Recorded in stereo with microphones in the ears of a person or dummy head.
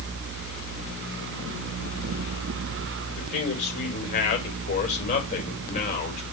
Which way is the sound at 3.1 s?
40° left (ahead or behind).